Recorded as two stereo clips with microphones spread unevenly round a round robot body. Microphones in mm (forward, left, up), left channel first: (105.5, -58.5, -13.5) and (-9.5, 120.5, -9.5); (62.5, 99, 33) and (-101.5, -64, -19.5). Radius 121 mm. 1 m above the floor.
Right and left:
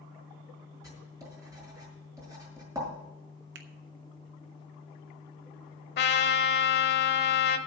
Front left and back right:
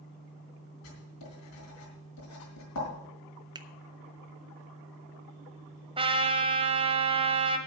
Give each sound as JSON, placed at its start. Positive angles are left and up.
{"t": 0.8, "sound": "writing", "azimuth_deg": 45, "distance_m": 5.0}
{"t": 3.5, "sound": "a finger snap", "azimuth_deg": 160, "distance_m": 0.7}
{"t": 6.0, "sound": "a trumpet", "azimuth_deg": -60, "distance_m": 1.0}